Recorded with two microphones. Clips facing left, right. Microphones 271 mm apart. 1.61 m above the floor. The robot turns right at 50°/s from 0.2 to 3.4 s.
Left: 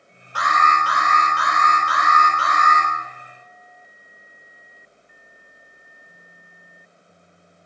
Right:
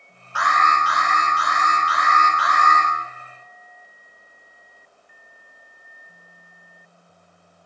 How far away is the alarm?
About 3 m.